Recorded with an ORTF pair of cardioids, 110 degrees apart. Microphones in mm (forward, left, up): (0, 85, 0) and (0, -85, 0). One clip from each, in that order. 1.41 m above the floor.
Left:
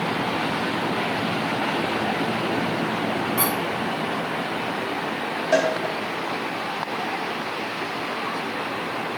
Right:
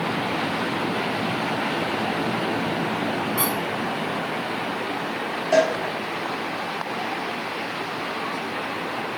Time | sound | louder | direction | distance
3.4 | a squeak | left 1 dB | 5° left | 3 m
5.5 | a cowbell | right 2 dB | 10° left | 3.5 m